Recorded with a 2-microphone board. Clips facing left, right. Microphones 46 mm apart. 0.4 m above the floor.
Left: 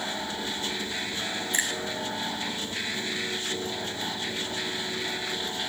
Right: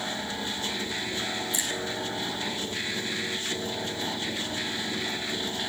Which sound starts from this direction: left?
A finger snap, at 1.5 s.